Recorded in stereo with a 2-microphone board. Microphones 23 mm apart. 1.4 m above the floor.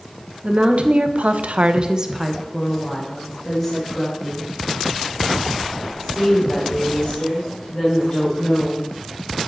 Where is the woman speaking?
55° right (ahead or behind), 1.2 m; by 8.8 s 25° left (ahead or behind), 6.5 m.